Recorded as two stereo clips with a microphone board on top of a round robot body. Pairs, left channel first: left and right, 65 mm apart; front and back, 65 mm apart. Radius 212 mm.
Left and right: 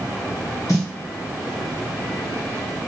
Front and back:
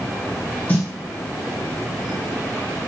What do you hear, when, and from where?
0.7 s a snare drum: 65° left, 2.5 m